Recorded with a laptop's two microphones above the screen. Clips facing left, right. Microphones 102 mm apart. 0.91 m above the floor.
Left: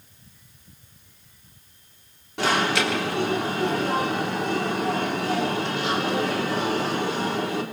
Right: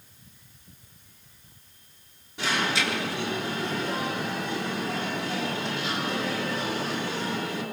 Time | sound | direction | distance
2.4 | an alarm | 70° left (ahead or behind) | 4 m